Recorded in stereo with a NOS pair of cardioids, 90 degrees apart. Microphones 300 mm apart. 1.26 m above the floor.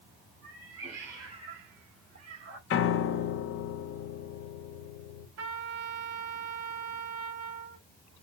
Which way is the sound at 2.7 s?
45° left.